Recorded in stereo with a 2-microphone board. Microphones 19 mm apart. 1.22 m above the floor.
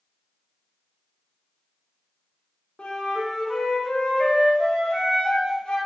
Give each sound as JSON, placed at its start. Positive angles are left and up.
{"t": 2.8, "sound": "a flute", "side_deg": 60, "distance_m": 0.6}